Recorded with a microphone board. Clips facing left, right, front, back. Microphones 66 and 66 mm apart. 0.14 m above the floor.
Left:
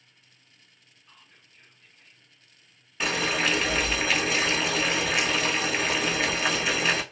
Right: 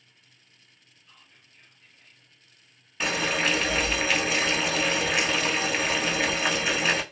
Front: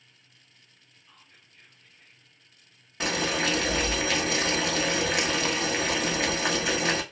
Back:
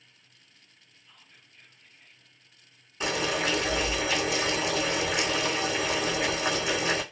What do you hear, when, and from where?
1.1 s whispering: 40° left, 1.9 m
3.0 s boiling: straight ahead, 0.8 m